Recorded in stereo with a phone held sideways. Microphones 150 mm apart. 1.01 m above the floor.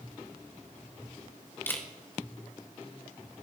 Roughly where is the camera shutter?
Centre.